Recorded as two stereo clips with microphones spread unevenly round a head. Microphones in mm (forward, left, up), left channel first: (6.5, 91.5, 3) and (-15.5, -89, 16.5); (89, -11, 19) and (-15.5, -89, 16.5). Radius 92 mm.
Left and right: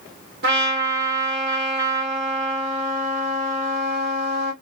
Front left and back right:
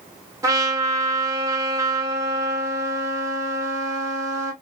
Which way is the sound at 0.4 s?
80° right.